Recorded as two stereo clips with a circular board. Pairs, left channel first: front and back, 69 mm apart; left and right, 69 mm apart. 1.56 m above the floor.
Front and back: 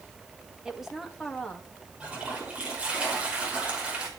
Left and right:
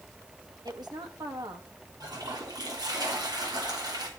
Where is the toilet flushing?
105° right, 5.5 m.